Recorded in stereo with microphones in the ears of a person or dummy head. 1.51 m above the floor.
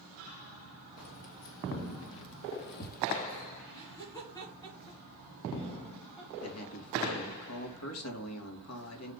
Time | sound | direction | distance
1.0 | keys jangling | 80° left | 2.5 m
3.7 | laughter | 20° left (ahead or behind) | 3.5 m
6.4 | a man speaking | 80° left | 2 m